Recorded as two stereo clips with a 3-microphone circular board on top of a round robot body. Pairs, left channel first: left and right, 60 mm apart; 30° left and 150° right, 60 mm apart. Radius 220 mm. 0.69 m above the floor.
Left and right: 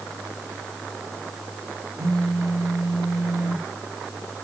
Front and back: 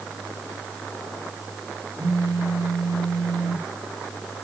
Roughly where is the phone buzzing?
Behind right.